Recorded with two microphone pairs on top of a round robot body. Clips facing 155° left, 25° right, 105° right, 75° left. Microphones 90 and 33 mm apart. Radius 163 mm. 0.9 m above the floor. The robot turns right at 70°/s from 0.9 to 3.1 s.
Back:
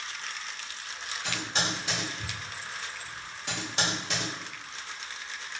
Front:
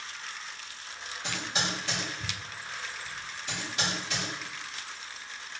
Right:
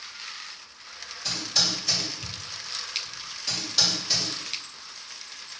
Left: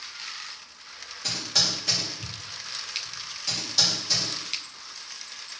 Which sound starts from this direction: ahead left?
Typing on a keyboard, at 1.2 s.